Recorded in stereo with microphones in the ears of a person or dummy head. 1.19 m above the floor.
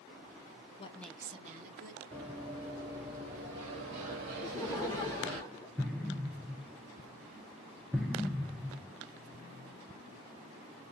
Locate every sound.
0.8 s a woman speaking: 35° left (ahead or behind), 0.6 m; by 2.0 s 55° right (ahead or behind), 1.2 m
2.1 s running footsteps: centre (ahead or behind), 1.5 m; by 5.4 s 45° right (ahead or behind), 1.6 m
4.4 s laughter: 15° left (ahead or behind), 0.7 m
5.8 s an explosion: 5° left (ahead or behind), 0.6 m